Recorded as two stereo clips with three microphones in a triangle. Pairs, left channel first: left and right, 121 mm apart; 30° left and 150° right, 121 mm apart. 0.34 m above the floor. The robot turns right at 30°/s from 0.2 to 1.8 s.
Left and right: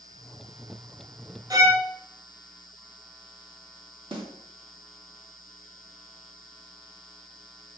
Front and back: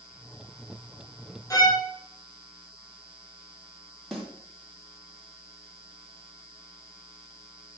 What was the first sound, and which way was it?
A violin, 30° right.